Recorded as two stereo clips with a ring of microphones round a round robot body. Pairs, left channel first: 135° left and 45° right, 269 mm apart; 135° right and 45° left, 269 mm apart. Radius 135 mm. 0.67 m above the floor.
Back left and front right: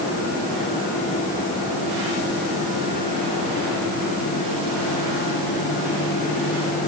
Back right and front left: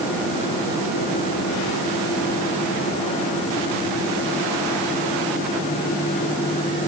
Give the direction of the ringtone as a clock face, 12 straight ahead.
I don't hear a ringtone.